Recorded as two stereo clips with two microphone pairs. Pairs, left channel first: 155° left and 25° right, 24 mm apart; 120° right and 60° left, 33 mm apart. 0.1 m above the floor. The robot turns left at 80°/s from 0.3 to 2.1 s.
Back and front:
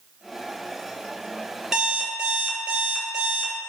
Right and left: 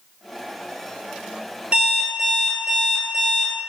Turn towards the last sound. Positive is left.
turn(degrees=10)